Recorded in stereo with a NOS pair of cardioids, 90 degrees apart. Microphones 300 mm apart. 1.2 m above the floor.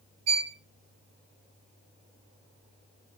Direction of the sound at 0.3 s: 65° right.